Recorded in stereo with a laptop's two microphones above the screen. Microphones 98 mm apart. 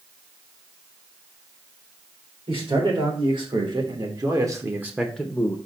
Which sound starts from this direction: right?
A man speaking, at 2.5 s.